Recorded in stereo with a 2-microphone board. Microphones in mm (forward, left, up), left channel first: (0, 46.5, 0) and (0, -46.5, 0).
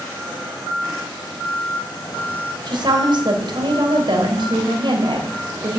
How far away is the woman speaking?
About 2.5 m.